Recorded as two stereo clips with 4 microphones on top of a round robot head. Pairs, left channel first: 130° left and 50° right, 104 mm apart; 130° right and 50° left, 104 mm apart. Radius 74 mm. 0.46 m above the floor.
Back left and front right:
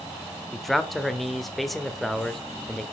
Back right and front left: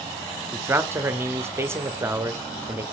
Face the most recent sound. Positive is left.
turn(degrees=40)